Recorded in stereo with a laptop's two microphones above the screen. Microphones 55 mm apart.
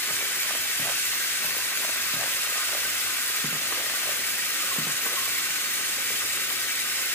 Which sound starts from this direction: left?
Running water, at 0.0 s.